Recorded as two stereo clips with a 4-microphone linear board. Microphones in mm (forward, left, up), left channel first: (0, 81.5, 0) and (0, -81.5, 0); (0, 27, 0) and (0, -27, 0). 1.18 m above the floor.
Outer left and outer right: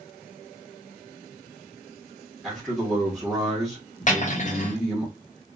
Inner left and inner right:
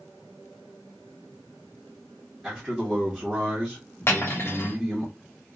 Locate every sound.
2.4 s a man speaking: centre (ahead or behind), 0.8 m
4.1 s cutlery clinking: 50° left (ahead or behind), 0.7 m